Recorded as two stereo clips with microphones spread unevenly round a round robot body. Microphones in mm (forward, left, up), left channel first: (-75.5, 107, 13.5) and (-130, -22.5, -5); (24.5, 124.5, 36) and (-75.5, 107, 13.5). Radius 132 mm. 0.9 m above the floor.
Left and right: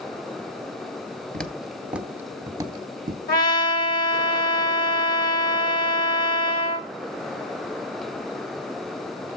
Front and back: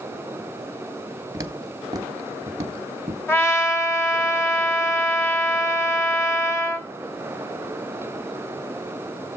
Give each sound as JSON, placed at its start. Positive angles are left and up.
{"t": 1.3, "sound": "footsteps", "azimuth_deg": 135, "distance_m": 1.0}
{"t": 3.3, "sound": "a trumpet", "azimuth_deg": 80, "distance_m": 2.0}